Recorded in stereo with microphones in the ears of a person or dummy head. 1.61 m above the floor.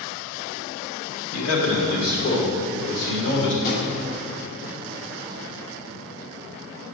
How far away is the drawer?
About 1.5 m.